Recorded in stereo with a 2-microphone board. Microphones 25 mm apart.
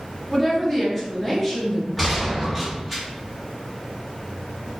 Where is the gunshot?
5° left (ahead or behind), 1.3 m.